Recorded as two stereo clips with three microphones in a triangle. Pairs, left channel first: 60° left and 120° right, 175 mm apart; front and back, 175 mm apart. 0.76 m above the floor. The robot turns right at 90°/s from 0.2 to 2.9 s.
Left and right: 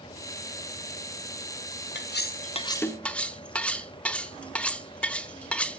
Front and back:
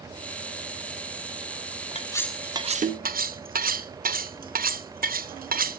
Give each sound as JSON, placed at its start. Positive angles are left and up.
{"t": 1.9, "sound": "cutlery clinking", "azimuth_deg": 55, "distance_m": 0.6}